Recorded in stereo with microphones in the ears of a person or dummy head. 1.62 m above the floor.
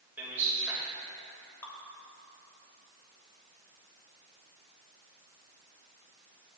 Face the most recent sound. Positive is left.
turn(degrees=15)  # may be behind; listen again after turning